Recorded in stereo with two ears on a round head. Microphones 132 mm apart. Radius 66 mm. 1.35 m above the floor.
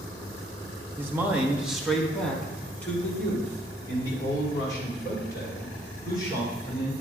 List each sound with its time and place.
1.0 s a man speaking: 15° right (ahead or behind), 1.3 m; by 6.9 s 25° left (ahead or behind), 4.5 m